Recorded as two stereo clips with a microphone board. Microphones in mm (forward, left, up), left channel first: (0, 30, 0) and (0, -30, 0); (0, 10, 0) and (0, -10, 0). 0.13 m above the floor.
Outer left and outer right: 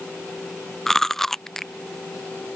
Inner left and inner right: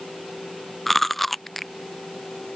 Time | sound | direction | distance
0.9 | chewing | 5° left (ahead or behind) | ?